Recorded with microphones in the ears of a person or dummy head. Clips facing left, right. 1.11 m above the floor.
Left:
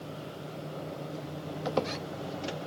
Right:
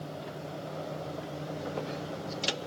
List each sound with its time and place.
1.6 s a squeak: 80° left, 1.0 m